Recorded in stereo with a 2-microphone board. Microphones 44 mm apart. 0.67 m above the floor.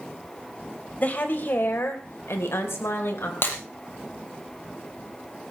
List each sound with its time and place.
1.0 s a woman speaking: 40° left (ahead or behind), 3.5 m; by 3.3 s 70° left (ahead or behind), 3.5 m
3.4 s breaking glass: 55° left (ahead or behind), 4.5 m